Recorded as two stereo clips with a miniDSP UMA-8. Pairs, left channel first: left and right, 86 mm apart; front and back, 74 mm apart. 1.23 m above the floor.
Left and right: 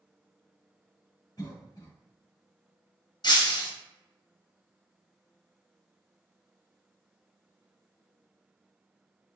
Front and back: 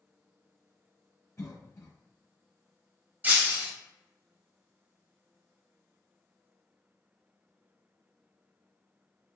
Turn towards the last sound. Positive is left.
turn(degrees=115)